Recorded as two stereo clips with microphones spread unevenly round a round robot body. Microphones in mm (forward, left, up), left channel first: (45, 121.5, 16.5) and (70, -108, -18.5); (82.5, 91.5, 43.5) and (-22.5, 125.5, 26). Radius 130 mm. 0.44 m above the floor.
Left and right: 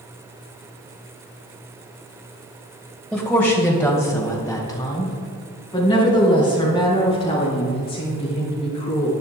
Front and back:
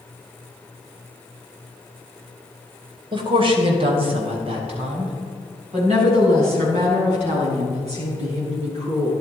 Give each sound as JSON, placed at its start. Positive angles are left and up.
{"t": 3.1, "sound": "a woman speaking", "azimuth_deg": -170, "distance_m": 1.8}